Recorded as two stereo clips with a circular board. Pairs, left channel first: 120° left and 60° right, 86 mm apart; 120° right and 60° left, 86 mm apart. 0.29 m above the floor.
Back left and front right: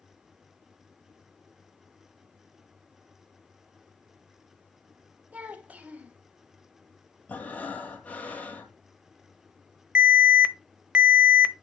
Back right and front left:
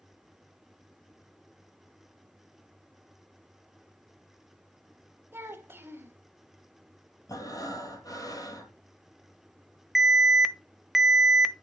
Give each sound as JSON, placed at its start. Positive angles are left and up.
{"t": 5.3, "sound": "a child speaking", "azimuth_deg": 5, "distance_m": 1.1}
{"t": 7.3, "sound": "breathing", "azimuth_deg": -165, "distance_m": 1.8}
{"t": 9.9, "sound": "an alarm", "azimuth_deg": -25, "distance_m": 0.7}